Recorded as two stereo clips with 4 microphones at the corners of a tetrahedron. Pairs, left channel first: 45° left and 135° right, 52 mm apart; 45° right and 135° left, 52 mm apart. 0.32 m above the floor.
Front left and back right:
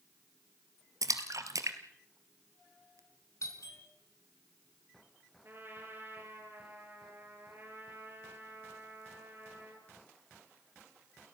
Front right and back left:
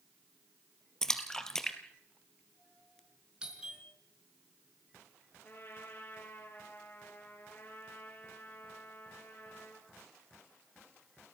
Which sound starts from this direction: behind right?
A splash, at 1.0 s.